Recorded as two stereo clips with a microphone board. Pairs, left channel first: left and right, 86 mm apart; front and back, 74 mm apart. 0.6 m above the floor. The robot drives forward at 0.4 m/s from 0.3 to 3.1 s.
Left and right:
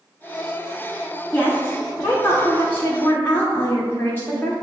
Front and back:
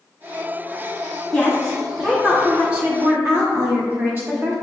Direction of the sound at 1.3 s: 65° left.